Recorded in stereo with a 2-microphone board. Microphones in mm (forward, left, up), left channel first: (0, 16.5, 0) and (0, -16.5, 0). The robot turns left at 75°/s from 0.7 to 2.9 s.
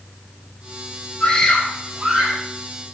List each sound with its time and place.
1.2 s a scream: 35° left, 8.5 m; by 2.4 s 55° right, 8.5 m